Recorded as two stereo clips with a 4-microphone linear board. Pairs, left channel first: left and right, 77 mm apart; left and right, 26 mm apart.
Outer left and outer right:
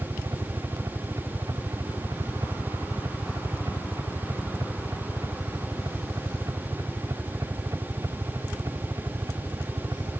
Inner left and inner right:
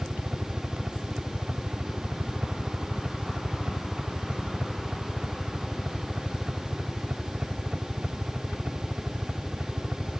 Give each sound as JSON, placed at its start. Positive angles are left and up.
{"t": 0.0, "sound": "a helicopter", "side_deg": -45}